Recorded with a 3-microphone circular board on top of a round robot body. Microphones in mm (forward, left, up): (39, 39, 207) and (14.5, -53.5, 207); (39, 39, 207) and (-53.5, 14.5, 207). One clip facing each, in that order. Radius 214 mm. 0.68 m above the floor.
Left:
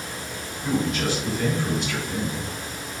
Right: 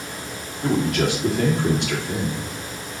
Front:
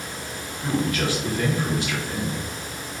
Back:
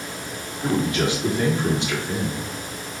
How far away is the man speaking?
About 2 m.